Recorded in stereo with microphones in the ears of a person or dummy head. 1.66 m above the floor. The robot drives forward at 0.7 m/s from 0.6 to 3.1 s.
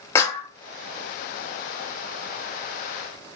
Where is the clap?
20° left (ahead or behind), 0.7 m.